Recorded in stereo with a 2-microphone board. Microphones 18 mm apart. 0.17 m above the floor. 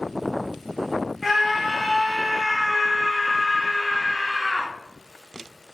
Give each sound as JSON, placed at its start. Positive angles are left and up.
{"t": 1.2, "sound": "a scream", "side_deg": 0, "distance_m": 1.6}